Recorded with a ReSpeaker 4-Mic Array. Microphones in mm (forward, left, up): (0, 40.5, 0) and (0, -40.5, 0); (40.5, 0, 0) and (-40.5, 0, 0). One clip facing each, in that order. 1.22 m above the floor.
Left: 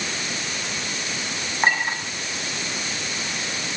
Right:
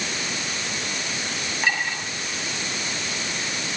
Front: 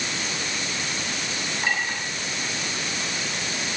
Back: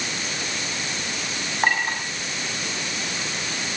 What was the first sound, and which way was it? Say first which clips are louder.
A clink: left 4 dB, back 5 dB; 140° left.